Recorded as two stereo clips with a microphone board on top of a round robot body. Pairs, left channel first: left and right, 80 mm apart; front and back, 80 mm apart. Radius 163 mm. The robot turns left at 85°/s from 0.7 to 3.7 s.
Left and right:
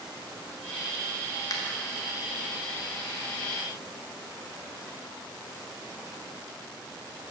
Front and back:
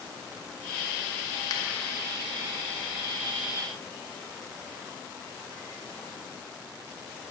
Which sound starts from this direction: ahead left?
A finger snap, at 1.5 s.